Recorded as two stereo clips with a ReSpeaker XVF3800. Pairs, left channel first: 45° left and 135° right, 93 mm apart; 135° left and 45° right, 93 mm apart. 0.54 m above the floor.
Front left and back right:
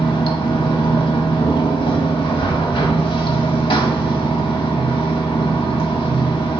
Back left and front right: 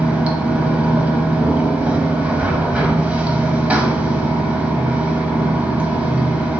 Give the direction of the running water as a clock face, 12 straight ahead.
11 o'clock.